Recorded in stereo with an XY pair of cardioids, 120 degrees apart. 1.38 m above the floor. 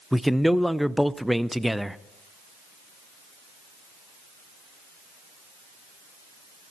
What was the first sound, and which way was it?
A man speaking, straight ahead.